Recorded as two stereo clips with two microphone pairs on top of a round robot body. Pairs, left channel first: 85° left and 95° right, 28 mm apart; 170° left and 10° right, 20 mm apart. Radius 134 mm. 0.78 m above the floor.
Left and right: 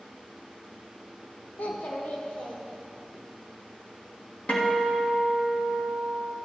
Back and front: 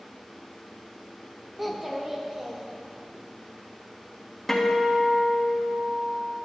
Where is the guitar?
100° left, 1.8 m.